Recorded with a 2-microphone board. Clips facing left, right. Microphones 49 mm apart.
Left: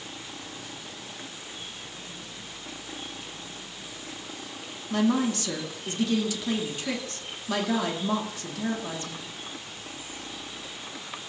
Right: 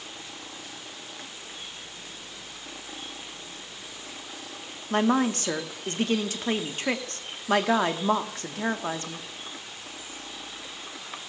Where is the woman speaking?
40° right (ahead or behind), 0.9 m.